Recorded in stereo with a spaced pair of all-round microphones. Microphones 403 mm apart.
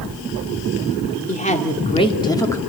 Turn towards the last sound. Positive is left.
turn(degrees=5)  # may be behind; listen again after turning